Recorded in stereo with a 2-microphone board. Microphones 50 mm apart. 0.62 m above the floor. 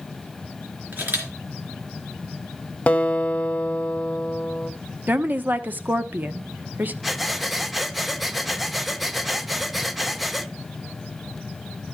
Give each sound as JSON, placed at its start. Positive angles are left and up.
{"t": 0.9, "sound": "a camera shutter", "side_deg": -40, "distance_m": 3.0}
{"t": 2.9, "sound": "a guitar", "side_deg": 25, "distance_m": 0.9}
{"t": 5.1, "sound": "a woman speaking", "side_deg": -35, "distance_m": 0.8}
{"t": 7.0, "sound": "breathing", "side_deg": 0, "distance_m": 0.6}